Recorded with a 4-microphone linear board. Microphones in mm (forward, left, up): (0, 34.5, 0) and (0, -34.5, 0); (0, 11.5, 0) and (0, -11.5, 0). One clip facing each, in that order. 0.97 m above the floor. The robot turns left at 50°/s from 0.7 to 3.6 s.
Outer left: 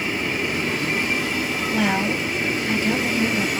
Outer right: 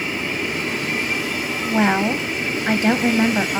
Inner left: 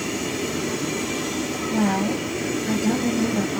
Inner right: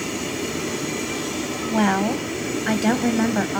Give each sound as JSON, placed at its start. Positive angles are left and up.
{"t": 1.6, "sound": "a woman speaking", "azimuth_deg": -30, "distance_m": 0.7}